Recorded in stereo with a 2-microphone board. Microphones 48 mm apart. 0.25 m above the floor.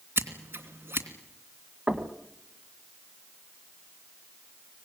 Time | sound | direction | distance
0.2 | scissors | 55° right (ahead or behind) | 3 m
1.9 | knocking | 25° right (ahead or behind) | 2.0 m